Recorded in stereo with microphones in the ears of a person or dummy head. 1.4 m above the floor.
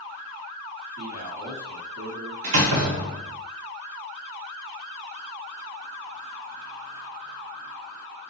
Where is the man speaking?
85° right, 1.7 m.